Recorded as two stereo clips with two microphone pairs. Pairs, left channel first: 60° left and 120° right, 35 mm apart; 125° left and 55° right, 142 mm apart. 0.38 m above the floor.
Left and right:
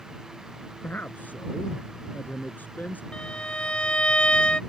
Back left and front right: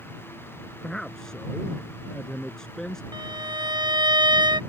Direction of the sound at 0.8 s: 40° left.